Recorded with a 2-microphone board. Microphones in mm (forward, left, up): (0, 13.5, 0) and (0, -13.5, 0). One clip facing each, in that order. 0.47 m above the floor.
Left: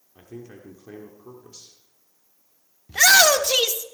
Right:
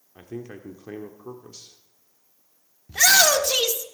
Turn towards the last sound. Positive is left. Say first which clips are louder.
# left 2 dB
turn(degrees=15)  # may be behind; listen again after turning